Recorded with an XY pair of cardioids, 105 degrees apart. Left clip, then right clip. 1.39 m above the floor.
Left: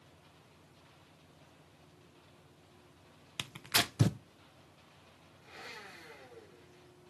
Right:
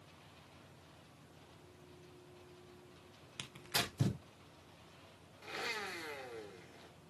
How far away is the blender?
About 1.6 m.